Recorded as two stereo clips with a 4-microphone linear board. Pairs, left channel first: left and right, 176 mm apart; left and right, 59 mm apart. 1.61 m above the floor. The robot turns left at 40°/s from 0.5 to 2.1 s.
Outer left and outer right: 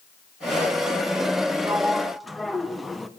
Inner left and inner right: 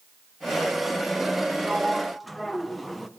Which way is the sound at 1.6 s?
20° right (ahead or behind).